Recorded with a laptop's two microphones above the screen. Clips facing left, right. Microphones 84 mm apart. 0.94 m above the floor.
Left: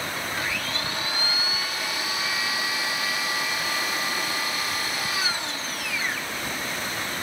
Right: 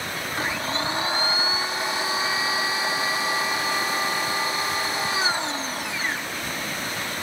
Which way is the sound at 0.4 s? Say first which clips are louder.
Right 3 dB; 30° right (ahead or behind).